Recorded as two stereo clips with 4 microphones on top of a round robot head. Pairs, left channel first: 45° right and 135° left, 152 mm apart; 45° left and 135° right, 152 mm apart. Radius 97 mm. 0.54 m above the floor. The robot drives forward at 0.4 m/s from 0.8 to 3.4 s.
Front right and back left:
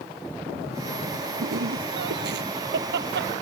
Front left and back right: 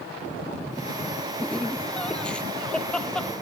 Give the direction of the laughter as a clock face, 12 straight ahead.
8 o'clock.